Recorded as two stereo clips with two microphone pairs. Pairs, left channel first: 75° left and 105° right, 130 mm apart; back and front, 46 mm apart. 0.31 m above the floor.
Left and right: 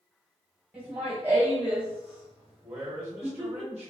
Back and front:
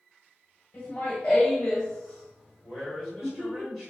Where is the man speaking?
75° right, 1.1 m.